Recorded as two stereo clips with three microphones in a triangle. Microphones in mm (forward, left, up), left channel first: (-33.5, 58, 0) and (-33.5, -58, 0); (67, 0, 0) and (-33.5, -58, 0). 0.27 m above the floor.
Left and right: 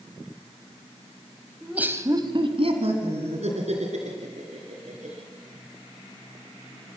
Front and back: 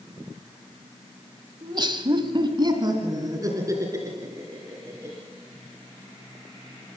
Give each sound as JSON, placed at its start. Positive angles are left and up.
{"t": 1.6, "sound": "laughter", "azimuth_deg": -175, "distance_m": 1.4}